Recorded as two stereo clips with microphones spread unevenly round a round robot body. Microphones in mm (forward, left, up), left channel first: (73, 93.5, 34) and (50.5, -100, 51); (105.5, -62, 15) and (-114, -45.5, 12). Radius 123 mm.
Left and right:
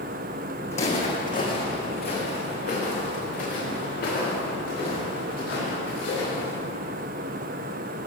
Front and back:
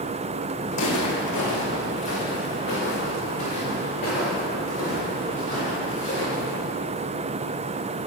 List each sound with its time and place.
0.7 s footsteps: 25° left, 3 m; by 6.5 s 60° left, 10.5 m